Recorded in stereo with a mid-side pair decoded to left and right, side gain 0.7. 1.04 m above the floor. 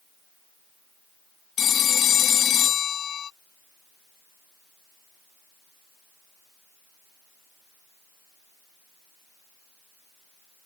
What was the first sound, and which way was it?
A phone ringing, 40° left.